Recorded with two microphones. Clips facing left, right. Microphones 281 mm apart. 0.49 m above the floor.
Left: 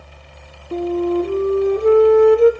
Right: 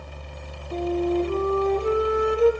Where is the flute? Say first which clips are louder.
Left 5 dB; 65° left (ahead or behind), 2.5 m.